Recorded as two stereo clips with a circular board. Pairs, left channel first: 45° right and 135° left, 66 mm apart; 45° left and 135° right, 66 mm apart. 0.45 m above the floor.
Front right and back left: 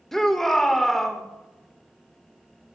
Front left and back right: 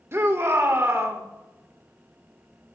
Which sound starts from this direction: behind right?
A shout, at 0.1 s.